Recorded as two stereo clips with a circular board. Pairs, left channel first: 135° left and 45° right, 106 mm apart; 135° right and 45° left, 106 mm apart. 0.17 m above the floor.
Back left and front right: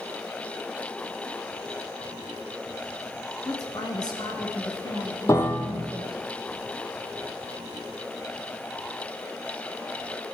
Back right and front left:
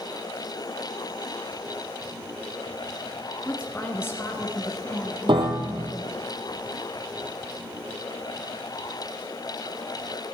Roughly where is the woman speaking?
Behind.